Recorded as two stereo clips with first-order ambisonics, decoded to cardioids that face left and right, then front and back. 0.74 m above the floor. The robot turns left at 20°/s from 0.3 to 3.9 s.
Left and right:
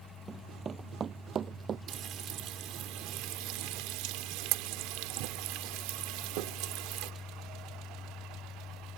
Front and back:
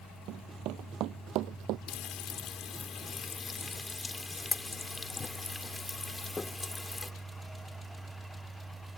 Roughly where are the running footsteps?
Behind right.